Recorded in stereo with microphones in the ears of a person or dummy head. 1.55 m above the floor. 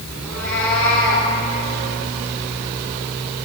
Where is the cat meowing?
10° left (ahead or behind), 6.5 m; by 1.3 s 5° left (ahead or behind), 7.5 m.